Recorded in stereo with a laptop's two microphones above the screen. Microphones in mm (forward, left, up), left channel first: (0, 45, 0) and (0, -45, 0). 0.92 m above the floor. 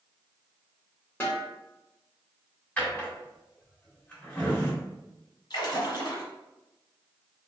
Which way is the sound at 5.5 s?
50° left (ahead or behind).